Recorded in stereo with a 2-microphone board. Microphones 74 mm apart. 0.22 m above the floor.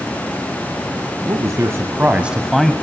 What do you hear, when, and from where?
1.3 s a man speaking: 50° right (ahead or behind), 2.5 m; by 2.7 s 10° left (ahead or behind), 1.4 m